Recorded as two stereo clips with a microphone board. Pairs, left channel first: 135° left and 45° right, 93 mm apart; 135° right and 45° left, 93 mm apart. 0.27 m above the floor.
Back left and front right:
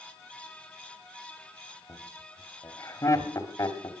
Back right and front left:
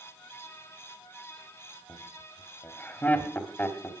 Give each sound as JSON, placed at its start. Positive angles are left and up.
{"t": 1.9, "sound": "laughter", "azimuth_deg": 165, "distance_m": 1.6}